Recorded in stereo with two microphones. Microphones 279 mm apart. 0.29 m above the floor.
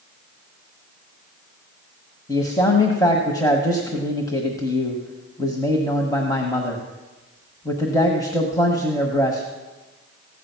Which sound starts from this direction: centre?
A man speaking, at 2.3 s.